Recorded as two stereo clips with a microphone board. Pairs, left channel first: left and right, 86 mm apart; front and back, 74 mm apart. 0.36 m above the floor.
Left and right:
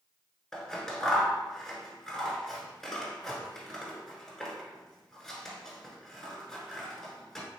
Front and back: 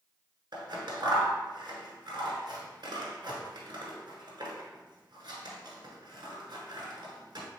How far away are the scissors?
About 1.0 m.